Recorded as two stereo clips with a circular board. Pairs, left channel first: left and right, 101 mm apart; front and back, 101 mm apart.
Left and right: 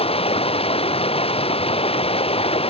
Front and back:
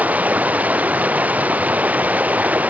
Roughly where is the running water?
Left.